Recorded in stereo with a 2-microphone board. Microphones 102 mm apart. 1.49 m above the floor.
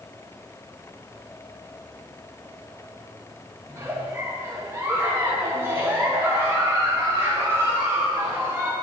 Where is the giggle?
20° right (ahead or behind), 1.4 m.